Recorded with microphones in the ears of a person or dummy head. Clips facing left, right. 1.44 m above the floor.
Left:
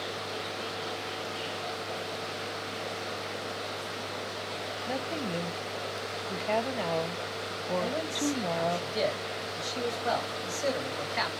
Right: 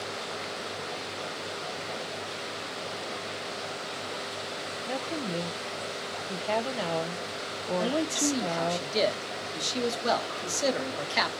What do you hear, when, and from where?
4.9 s a woman speaking: 5° right (ahead or behind), 0.6 m
7.8 s a man speaking: 60° right (ahead or behind), 1.2 m